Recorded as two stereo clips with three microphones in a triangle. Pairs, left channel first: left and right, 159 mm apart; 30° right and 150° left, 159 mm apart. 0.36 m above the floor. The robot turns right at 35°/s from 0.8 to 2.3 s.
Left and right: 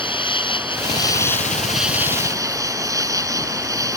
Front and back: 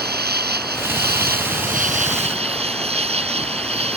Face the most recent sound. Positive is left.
turn(degrees=-160)